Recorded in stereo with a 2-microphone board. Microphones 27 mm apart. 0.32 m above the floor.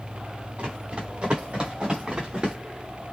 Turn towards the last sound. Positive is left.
turn(degrees=-30)  # may be behind; listen again after turning